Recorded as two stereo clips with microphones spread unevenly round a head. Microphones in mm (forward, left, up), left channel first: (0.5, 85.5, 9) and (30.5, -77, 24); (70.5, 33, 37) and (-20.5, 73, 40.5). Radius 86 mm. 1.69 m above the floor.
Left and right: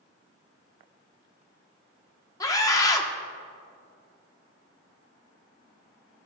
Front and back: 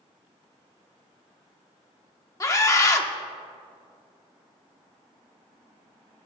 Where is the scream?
30° left, 1.1 m.